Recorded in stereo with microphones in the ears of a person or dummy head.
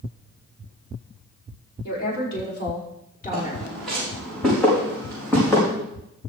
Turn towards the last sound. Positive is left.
turn(degrees=10)  # may be behind; listen again after turning